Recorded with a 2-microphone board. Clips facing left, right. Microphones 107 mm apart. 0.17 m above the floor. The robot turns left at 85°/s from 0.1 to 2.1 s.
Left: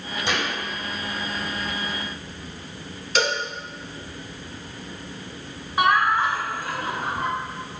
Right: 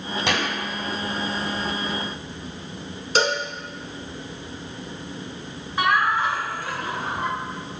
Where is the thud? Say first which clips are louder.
Right 1 dB; 70° right (ahead or behind), 1.4 m; by 0.6 s 75° right (ahead or behind), 1.4 m.